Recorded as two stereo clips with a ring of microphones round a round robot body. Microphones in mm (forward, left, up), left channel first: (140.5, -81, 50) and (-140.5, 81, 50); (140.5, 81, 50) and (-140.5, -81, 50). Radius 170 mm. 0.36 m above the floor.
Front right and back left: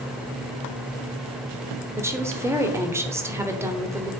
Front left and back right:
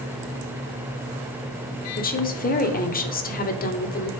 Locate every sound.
2.0 s a woman speaking: 75° left, 1.1 m